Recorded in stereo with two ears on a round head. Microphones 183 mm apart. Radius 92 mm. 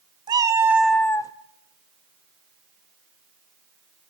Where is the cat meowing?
20° right (ahead or behind), 1.4 m; by 1.3 s 20° left (ahead or behind), 0.9 m.